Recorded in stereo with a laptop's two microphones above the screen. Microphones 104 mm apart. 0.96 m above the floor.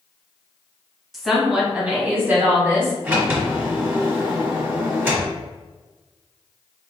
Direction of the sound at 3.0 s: 15° right (ahead or behind).